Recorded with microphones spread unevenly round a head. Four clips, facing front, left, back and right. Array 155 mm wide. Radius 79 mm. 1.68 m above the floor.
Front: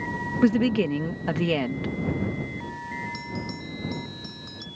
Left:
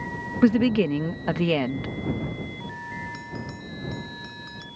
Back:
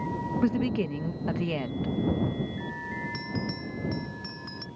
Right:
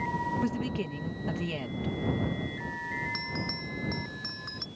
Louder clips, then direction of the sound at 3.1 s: Even, even; 150° right.